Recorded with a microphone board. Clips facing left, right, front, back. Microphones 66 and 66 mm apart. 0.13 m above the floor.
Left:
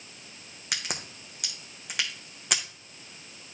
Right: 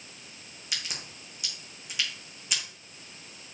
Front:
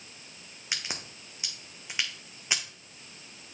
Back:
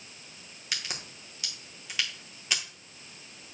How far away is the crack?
About 1.4 m.